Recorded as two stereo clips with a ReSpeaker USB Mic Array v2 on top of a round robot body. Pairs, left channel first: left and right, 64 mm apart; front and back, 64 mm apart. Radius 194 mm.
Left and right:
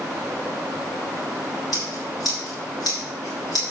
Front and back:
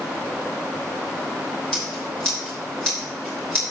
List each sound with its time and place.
1.7 s scissors: 75° left, 5.5 m